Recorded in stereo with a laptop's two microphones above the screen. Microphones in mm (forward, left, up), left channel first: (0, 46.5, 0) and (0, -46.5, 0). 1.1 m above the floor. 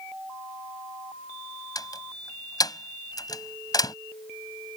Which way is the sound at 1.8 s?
45° left (ahead or behind).